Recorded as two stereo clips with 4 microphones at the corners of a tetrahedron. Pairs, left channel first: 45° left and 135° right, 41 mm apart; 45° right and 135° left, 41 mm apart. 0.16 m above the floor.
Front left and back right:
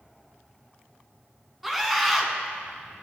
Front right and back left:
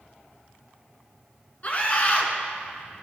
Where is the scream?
50° right, 1.3 m.